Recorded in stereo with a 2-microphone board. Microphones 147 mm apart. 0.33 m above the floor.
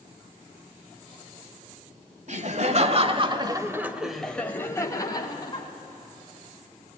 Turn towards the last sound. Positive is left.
turn(degrees=30)  # may be behind; listen again after turning